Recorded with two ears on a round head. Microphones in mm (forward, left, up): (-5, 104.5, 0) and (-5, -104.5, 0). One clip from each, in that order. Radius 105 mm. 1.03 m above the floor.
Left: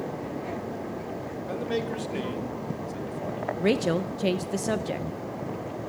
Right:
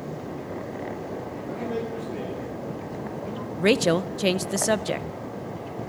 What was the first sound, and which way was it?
A man speaking, 50° left (ahead or behind).